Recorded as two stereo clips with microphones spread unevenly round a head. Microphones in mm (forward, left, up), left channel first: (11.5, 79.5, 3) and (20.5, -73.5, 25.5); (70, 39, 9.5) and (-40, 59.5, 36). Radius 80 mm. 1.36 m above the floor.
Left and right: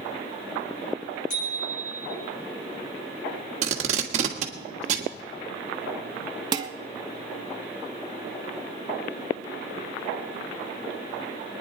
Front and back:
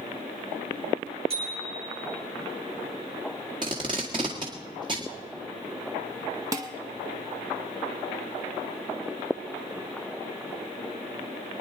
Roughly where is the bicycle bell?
Behind left.